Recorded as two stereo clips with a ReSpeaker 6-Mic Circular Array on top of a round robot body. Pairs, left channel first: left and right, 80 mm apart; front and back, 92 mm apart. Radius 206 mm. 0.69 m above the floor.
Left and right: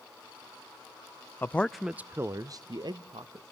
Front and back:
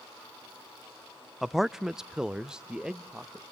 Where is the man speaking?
90° left, 0.6 m; by 3.4 s 100° right, 1.2 m.